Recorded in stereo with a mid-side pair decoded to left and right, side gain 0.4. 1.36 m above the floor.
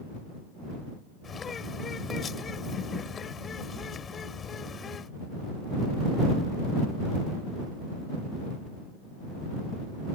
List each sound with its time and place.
1.2 s a bird: 50° left